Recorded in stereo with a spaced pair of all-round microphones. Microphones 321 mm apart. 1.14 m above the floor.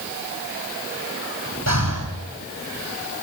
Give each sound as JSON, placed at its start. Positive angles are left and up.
{"t": 1.7, "sound": "breathing", "side_deg": -55, "distance_m": 7.5}